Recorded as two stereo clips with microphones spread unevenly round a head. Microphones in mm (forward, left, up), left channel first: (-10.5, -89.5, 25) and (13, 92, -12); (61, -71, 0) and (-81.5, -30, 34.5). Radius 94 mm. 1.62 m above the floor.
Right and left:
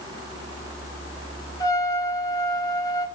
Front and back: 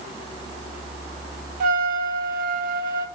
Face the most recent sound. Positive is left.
turn(degrees=-170)